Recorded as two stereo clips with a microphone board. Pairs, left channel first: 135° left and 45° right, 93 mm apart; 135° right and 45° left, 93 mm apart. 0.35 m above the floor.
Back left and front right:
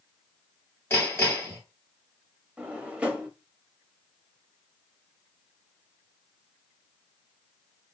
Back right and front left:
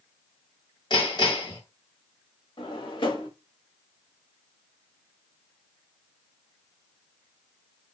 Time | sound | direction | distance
0.9 | hammering | 160° right | 2 m
2.6 | a drawer | 120° right | 0.7 m